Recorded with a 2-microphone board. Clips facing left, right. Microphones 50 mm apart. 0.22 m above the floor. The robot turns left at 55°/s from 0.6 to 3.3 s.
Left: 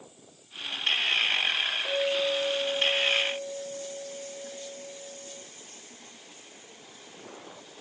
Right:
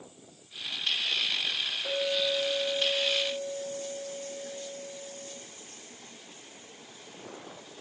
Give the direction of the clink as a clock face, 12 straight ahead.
6 o'clock.